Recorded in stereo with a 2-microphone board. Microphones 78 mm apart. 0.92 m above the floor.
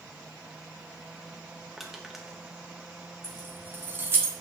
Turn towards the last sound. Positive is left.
turn(degrees=-30)  # may be behind; listen again after turning